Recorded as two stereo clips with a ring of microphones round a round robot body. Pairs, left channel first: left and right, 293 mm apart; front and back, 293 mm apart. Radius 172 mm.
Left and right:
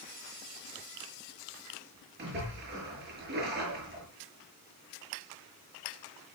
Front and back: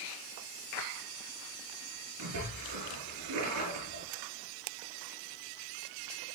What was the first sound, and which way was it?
A splash, 150° right.